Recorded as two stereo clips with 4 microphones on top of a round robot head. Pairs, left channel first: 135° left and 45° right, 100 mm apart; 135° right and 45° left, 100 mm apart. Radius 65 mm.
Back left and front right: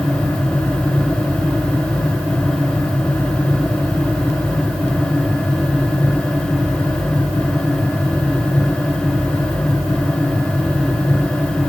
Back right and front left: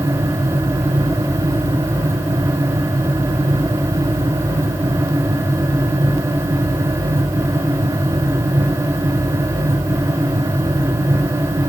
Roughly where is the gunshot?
No gunshot in this recording.